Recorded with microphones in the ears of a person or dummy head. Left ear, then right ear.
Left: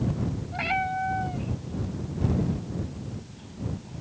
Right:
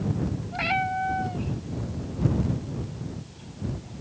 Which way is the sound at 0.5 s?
10° right (ahead or behind).